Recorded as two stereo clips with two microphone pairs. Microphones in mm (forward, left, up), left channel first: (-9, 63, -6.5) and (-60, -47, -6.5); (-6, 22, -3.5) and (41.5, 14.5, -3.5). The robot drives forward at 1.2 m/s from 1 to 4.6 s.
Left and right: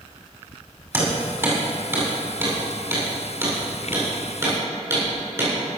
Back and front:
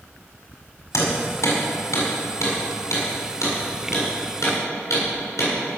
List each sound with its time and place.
0.9 s hammering: 175° left, 6 m